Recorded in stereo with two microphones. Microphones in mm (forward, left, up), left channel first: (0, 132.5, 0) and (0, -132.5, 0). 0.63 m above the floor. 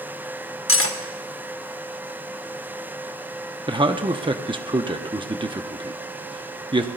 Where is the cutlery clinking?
55° left (ahead or behind), 0.8 m.